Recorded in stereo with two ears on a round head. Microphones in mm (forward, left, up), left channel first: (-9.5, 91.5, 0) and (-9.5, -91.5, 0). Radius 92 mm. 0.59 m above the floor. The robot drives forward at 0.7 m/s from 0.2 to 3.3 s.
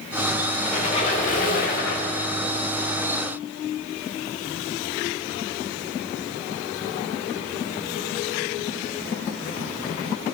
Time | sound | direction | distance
0.6 | a squeak | 30° left (ahead or behind) | 1.6 m